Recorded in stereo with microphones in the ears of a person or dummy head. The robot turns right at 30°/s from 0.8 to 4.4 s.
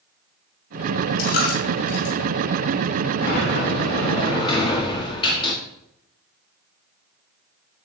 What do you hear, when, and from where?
1.2 s a dropped coin: 50° left (ahead or behind), 2.5 m; by 2.1 s 60° left (ahead or behind), 2.5 m
3.2 s a sliding door: 105° left, 1.6 m; by 5.5 s 140° left, 1.6 m